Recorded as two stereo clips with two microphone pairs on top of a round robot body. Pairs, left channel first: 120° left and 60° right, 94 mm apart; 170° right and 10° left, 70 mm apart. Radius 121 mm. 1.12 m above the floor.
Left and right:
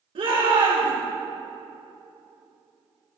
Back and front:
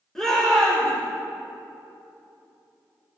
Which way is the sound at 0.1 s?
85° right.